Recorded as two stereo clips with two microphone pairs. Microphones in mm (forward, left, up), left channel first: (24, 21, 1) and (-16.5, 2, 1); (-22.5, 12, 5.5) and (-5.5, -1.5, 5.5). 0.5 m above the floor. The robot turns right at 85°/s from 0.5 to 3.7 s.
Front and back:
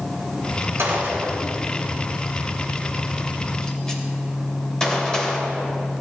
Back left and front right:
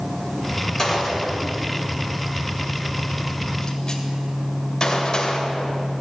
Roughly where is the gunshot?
Behind right.